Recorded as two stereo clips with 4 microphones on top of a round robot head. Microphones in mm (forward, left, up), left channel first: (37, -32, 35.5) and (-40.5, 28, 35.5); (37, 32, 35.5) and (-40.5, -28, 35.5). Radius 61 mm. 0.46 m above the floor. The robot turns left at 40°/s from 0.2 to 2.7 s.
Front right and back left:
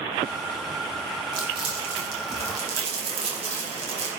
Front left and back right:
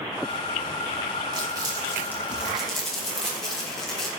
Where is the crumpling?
Straight behind, 4 m; by 4.1 s 125° left, 4 m.